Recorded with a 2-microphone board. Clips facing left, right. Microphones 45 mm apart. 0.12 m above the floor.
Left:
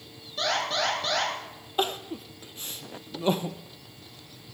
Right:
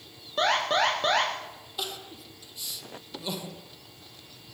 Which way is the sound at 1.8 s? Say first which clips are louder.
Left 9 dB; 45° left (ahead or behind).